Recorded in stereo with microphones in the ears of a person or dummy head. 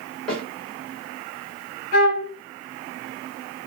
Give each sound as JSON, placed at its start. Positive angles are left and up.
{"t": 0.3, "sound": "a snare drum", "side_deg": 0, "distance_m": 1.6}
{"t": 1.9, "sound": "a flute", "side_deg": 45, "distance_m": 1.1}